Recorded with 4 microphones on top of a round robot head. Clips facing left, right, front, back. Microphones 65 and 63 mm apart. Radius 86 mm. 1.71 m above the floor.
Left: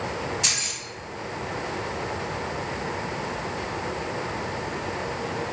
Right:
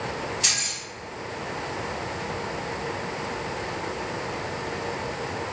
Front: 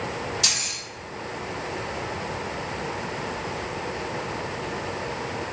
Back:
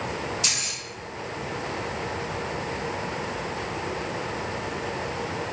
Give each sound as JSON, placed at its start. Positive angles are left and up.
{"t": 0.4, "sound": "keys jangling", "azimuth_deg": 5, "distance_m": 2.0}